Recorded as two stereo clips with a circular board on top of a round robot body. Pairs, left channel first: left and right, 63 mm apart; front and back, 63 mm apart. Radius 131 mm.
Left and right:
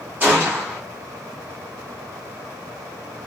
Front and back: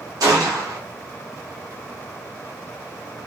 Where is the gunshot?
155° right, 0.8 m.